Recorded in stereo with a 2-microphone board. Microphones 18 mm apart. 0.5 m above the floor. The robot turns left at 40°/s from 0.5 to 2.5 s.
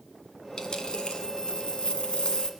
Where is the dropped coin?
135° left, 2.0 m; by 2.5 s 55° left, 2.0 m.